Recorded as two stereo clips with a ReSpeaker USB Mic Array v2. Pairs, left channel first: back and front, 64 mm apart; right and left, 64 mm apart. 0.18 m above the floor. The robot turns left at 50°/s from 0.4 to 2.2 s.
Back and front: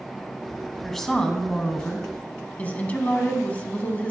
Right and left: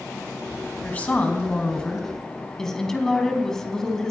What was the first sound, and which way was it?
A woman speaking, 95° right.